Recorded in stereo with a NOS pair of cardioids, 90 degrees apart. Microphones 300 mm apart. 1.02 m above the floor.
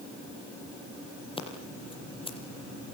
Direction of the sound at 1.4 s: 20° left.